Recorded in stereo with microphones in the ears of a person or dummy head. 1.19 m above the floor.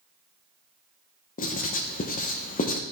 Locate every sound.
1.4 s writing: 40° left (ahead or behind), 0.6 m